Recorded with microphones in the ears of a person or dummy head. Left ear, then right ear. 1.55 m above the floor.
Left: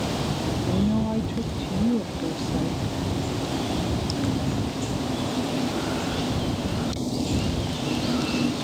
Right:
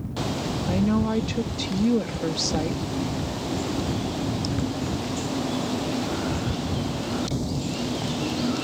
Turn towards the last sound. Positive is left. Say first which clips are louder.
# right 4 dB
turn(degrees=-55)  # may be behind; listen again after turning